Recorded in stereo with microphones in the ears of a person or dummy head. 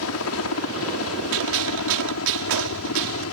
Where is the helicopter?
75° left (ahead or behind).